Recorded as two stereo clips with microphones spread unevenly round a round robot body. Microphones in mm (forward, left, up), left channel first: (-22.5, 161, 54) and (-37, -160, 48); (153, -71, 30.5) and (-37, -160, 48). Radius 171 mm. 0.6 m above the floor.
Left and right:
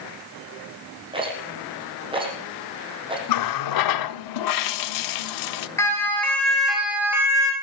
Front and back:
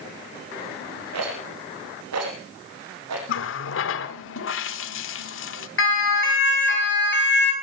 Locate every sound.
1.1 s a rattle: 170° right, 6 m
3.3 s a running tap: 55° left, 1.1 m
5.8 s a siren: 5° left, 7 m; by 7.5 s 15° right, 5 m